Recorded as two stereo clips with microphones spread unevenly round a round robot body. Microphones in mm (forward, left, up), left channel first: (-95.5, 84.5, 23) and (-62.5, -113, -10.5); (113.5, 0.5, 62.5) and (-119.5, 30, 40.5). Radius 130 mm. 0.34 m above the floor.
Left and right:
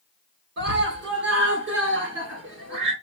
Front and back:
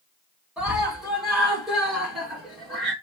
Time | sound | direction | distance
0.6 | a scream | 105° right | 3.5 m